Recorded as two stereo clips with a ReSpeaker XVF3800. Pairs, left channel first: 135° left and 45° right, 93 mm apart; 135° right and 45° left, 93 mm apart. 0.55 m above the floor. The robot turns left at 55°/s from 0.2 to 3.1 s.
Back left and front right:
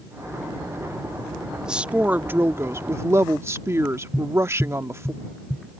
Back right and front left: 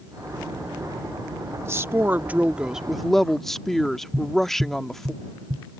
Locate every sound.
1.6 s a woman speaking: 30° left; by 5.1 s 50° right
4.1 s tapping: 55° left